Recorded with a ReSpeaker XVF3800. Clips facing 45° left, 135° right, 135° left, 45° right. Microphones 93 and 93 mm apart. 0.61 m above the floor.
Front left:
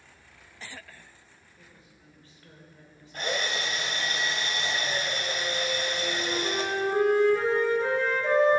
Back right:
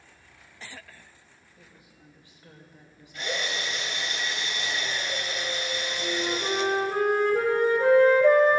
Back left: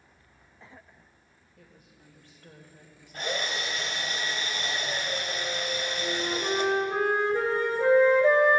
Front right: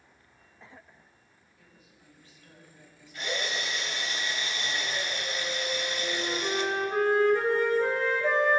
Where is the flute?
165° right, 3 m.